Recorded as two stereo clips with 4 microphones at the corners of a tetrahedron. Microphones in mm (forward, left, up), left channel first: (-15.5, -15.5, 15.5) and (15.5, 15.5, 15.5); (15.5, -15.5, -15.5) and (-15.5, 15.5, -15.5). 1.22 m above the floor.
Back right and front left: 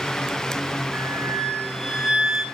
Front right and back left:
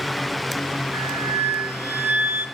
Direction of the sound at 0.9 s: 125° left.